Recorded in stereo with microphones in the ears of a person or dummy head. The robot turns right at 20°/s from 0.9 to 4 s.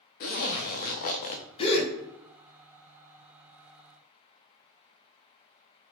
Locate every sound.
0.2 s a zipper: 40° left (ahead or behind), 0.5 m; by 1.4 s 35° left (ahead or behind), 0.5 m
1.6 s a gasp: 30° left (ahead or behind), 0.9 m; by 1.9 s 35° left (ahead or behind), 0.9 m